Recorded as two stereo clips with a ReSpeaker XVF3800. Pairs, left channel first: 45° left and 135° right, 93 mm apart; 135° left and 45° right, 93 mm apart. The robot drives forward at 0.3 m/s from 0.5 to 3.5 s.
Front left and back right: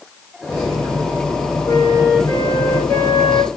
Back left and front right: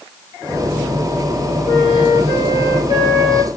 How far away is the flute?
About 1.9 m.